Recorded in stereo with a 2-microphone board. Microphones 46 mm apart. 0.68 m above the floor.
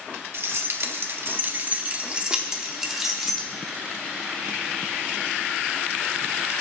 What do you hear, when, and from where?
0.3 s keys jangling: 65° right (ahead or behind), 1.2 m; by 3.5 s centre (ahead or behind), 1.8 m